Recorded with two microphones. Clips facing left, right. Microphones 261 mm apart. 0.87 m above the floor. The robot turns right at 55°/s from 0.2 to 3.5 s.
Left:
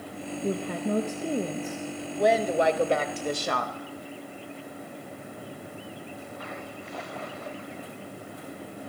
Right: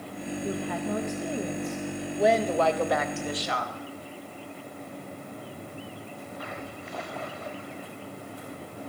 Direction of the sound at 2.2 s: 5° right.